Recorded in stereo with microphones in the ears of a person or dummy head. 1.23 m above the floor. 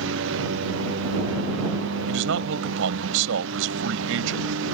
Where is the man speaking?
80° right.